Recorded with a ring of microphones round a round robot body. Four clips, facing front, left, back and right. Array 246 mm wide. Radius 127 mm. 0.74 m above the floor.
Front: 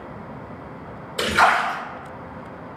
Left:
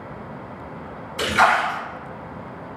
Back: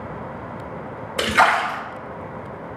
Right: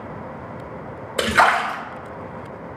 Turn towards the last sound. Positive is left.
turn(degrees=-105)